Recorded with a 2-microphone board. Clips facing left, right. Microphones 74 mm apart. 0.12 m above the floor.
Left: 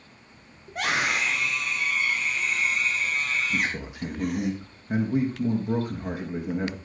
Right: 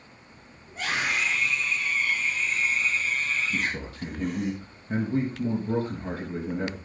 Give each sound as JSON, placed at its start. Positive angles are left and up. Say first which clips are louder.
{"t": 0.7, "sound": "a scream", "louder": "left 3 dB", "side_deg": 70, "distance_m": 5.5}
{"t": 3.5, "sound": "a man speaking", "louder": "left 2 dB", "side_deg": 15, "distance_m": 4.5}